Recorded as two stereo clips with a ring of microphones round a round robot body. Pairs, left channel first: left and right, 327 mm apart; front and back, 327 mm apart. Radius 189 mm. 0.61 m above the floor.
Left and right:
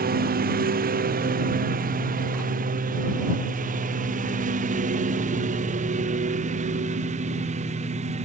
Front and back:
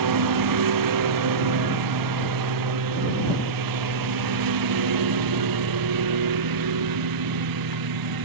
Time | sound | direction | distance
0.0 | a lawn mower | 155° right | ?